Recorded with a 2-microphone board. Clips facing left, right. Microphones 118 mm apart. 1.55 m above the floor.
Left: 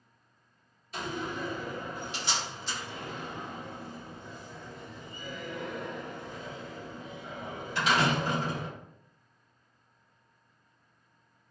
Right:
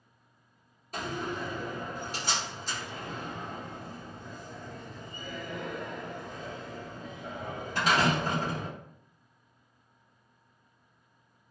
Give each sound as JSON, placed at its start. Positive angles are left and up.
{"t": 0.9, "sound": "a door slam", "side_deg": -45, "distance_m": 1.0}